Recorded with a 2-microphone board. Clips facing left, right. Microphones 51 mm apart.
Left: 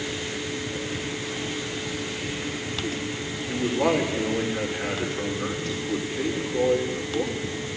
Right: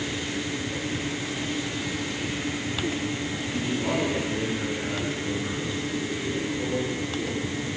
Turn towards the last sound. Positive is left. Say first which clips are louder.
# left 6 dB
turn(degrees=80)